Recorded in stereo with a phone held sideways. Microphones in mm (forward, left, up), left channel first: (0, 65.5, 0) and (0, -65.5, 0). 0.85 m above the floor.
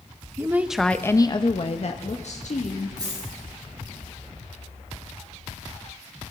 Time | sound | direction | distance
0.4 | a woman speaking | 20° right (ahead or behind) | 0.8 m
3.0 | a dropped coin | 30° right (ahead or behind) | 7 m